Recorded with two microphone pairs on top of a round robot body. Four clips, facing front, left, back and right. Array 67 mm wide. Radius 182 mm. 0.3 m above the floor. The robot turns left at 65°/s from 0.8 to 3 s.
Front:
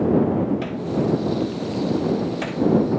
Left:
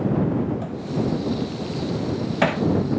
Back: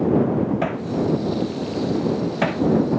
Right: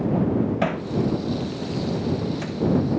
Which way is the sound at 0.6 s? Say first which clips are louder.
Right 2 dB, back 1 dB; 130° right.